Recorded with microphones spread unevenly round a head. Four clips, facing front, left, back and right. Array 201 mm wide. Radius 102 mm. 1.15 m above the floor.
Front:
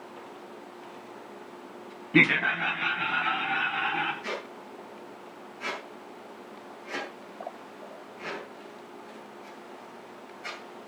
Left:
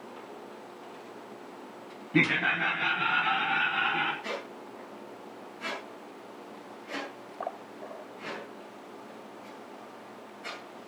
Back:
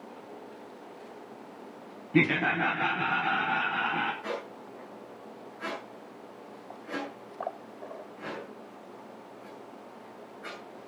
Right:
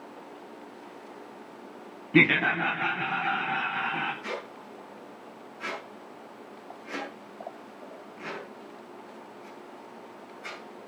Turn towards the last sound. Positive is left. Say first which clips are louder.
# right 1 dB, even
turn(degrees=-160)